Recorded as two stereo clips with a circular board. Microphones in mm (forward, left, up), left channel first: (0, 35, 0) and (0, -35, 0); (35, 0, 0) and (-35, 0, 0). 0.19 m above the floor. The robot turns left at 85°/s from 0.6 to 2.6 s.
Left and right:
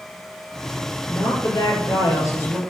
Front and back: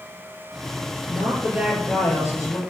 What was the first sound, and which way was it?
A woman speaking, 150° left.